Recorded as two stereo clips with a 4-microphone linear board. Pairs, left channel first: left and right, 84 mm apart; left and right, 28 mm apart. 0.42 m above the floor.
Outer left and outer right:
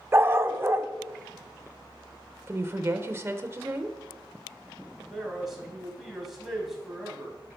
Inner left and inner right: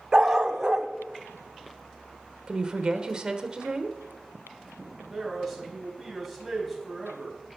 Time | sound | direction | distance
0.1 | a dog barking | 30° right (ahead or behind) | 0.7 m
2.5 | a woman speaking | 30° right (ahead or behind) | 1.0 m
5.1 | a man speaking | centre (ahead or behind) | 3 m